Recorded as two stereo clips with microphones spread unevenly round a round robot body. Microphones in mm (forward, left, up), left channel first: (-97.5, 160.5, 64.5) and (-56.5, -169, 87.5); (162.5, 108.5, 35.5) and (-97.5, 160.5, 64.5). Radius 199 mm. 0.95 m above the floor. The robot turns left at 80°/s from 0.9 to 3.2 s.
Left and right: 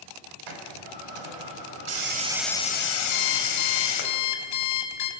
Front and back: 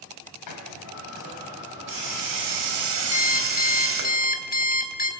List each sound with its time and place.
0.5 s a hiss: 50° right, 2.5 m; by 4.1 s 125° left, 2.5 m
3.1 s an alarm clock: 55° left, 3 m; by 5.1 s 50° left, 3 m